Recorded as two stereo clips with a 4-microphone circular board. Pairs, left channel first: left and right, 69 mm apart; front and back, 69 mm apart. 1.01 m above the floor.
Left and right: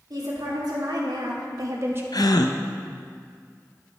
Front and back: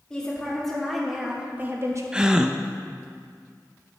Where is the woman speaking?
80° right, 2.5 m; by 2.0 s 145° right, 1.1 m.